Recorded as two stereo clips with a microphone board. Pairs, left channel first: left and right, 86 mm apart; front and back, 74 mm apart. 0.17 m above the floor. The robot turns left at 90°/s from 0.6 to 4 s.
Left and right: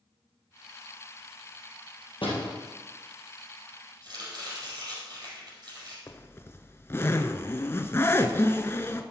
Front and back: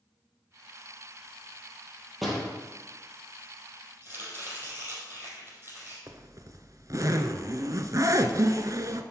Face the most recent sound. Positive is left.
turn(degrees=150)